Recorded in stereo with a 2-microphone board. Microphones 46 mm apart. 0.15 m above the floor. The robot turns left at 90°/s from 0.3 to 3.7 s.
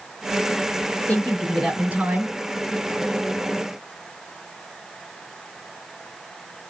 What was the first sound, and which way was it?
A woman speaking, 45° left.